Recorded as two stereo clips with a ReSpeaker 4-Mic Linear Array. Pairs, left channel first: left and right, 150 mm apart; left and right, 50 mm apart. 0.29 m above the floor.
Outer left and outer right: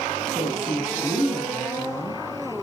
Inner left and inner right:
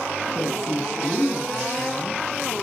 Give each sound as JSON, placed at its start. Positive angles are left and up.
{"t": 0.3, "sound": "a woman speaking", "side_deg": 0, "distance_m": 2.5}